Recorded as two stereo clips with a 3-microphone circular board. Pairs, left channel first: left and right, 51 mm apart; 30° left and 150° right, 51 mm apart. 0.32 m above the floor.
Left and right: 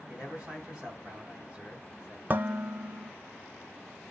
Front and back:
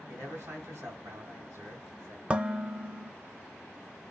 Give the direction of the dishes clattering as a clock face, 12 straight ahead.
3 o'clock.